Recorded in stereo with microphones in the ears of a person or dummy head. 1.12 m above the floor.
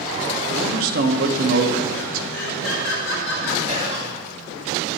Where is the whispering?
30° right (ahead or behind), 2.5 m.